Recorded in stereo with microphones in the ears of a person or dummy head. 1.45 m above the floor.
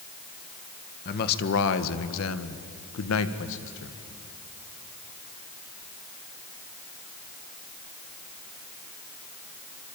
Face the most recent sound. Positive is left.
turn(degrees=60)  # may be behind; listen again after turning